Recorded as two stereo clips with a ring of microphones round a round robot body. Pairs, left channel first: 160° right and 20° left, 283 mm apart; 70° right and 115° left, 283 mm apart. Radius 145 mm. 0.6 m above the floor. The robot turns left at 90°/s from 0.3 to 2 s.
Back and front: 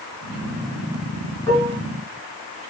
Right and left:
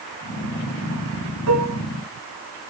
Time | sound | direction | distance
1.5 | dishes clattering | 125° left | 5.5 m